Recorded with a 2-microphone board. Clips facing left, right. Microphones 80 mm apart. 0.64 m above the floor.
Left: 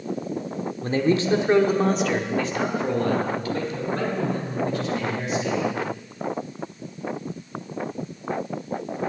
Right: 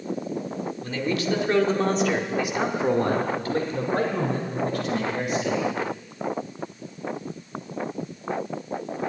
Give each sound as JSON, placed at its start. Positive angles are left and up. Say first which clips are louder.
{"t": 0.8, "sound": "a man speaking", "louder": "left 6 dB", "side_deg": 40, "distance_m": 1.3}